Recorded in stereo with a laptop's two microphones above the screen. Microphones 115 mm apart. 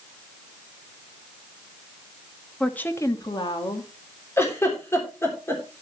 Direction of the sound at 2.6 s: 5° left (ahead or behind).